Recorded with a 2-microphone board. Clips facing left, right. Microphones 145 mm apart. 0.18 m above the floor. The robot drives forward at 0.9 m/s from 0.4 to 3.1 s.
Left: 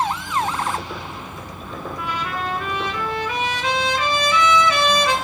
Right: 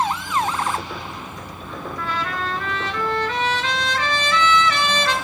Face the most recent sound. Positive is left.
turn(degrees=10)  # may be behind; listen again after turning